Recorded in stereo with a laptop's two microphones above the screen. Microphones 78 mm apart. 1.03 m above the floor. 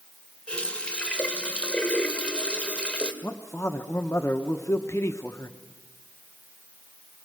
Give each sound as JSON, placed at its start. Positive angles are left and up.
{"t": 0.5, "sound": "a running tap", "side_deg": 15, "distance_m": 2.5}
{"t": 3.2, "sound": "a man speaking", "side_deg": 35, "distance_m": 1.0}